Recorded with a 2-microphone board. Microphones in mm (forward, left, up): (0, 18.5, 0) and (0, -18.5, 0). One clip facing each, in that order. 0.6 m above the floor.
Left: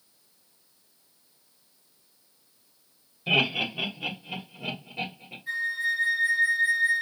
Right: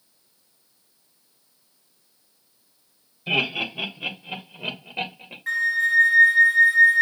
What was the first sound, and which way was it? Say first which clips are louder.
Laughter: even; 10° left (ahead or behind).